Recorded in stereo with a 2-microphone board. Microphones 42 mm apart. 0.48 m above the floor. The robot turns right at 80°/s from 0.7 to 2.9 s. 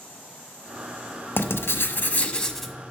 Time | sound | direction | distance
1.4 | writing | 75° left | 0.7 m